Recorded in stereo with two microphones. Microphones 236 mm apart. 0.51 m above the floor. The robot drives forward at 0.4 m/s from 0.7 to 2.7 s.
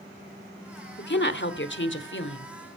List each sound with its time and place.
1.0 s a woman speaking: 50° left (ahead or behind), 1.2 m; by 2.5 s 55° left (ahead or behind), 1.1 m